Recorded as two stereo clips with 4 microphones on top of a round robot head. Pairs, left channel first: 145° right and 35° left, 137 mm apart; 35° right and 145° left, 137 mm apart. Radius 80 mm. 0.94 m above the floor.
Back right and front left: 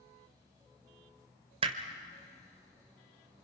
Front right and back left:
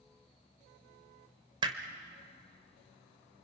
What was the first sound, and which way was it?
Hammering, 85° left.